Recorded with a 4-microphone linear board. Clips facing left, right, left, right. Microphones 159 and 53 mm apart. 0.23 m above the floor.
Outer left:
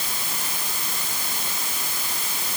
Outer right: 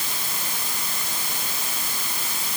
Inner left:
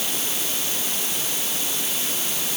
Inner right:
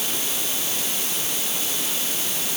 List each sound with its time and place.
Only background noise.